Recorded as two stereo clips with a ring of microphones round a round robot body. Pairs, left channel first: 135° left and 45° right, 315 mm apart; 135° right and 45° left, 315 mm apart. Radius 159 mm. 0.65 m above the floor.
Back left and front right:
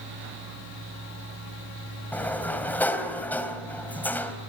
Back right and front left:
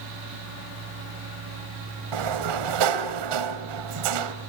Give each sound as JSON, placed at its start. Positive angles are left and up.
{"t": 2.1, "sound": "a sliding door", "azimuth_deg": 50, "distance_m": 2.5}